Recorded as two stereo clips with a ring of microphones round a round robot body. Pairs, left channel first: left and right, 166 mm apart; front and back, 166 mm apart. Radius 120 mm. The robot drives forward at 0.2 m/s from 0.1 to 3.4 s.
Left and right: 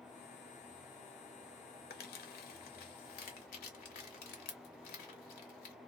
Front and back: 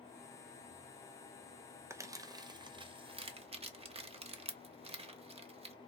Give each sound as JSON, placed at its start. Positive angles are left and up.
{"t": 1.9, "sound": "crumpling", "azimuth_deg": 105, "distance_m": 0.7}